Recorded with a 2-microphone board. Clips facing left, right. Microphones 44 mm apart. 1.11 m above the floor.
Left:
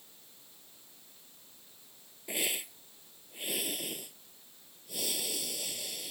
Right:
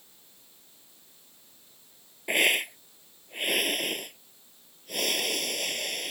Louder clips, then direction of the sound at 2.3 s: Right 12 dB; 60° right (ahead or behind).